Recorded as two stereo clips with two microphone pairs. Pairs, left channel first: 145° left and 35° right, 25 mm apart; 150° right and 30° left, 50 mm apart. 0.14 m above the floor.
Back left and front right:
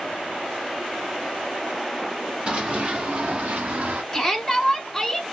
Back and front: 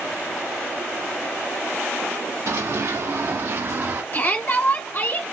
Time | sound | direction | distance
2.5 | running footsteps | 15° left | 1.6 m
4.1 | a shout | 150° right | 1.4 m